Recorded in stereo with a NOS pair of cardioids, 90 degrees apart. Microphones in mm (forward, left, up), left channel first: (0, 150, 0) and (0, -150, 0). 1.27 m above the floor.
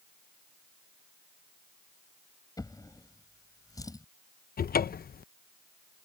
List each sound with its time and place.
2.6 s a drawer: 10° left
4.6 s a cupboard door: 30° left